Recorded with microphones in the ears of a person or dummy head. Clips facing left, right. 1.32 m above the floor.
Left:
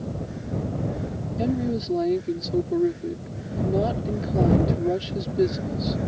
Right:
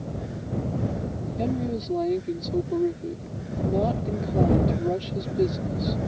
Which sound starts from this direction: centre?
A woman speaking, at 1.4 s.